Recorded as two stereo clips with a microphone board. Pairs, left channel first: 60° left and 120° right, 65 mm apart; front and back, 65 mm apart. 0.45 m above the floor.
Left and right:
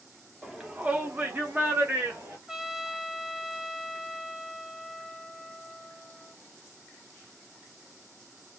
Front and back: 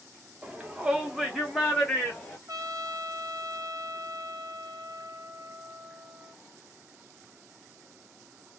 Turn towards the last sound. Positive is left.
turn(degrees=160)